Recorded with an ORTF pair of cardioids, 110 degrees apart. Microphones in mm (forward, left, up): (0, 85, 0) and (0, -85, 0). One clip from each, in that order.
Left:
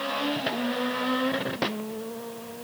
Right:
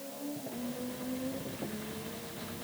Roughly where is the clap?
No clap in this recording.